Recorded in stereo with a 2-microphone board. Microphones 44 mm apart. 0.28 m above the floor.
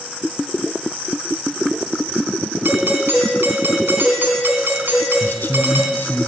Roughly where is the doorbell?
Right.